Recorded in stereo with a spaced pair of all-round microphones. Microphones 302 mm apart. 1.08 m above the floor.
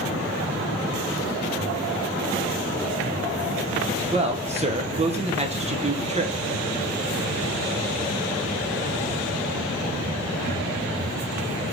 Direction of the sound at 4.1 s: 20° right (ahead or behind).